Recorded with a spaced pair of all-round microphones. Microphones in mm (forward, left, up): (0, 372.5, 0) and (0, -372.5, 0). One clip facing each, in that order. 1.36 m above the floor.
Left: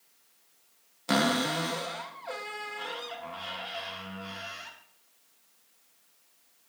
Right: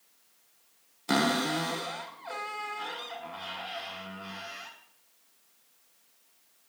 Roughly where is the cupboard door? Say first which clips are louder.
Even; centre.